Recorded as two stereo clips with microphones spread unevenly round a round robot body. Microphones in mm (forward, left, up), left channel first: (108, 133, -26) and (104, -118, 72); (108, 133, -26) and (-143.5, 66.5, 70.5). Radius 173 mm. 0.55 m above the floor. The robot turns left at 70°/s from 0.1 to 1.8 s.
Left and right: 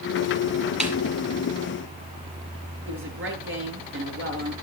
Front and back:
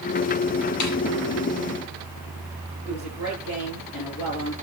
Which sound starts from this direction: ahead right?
A woman speaking, at 2.9 s.